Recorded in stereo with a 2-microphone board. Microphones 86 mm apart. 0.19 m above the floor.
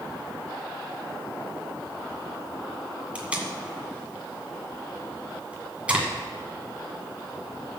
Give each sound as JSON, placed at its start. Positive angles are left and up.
{"t": 3.1, "sound": "tape being pulled", "side_deg": -15, "distance_m": 2.0}